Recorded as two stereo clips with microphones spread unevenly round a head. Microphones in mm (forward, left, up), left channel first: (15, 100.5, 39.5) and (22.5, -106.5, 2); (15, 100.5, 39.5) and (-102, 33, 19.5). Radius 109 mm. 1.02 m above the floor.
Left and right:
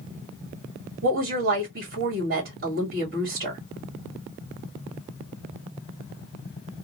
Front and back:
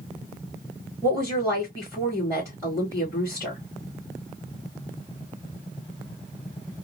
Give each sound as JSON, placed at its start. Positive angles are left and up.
{"t": 1.0, "sound": "a woman speaking", "azimuth_deg": -45, "distance_m": 2.0}